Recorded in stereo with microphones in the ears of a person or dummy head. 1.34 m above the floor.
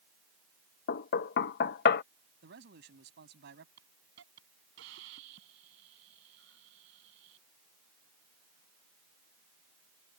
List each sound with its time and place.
0.9 s knocking: 65° left (ahead or behind)
2.4 s a man speaking: 60° right (ahead or behind)
3.8 s a hiss: 70° right (ahead or behind)